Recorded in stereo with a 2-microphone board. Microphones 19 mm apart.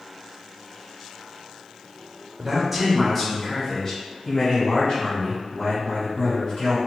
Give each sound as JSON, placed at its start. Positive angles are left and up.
{"t": 2.4, "sound": "a man speaking", "side_deg": -20, "distance_m": 0.9}